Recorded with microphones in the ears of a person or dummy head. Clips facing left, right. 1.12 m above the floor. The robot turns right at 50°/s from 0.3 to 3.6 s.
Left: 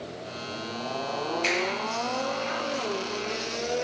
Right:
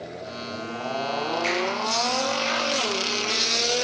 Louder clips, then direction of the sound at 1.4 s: Right 1 dB; 15° left (ahead or behind).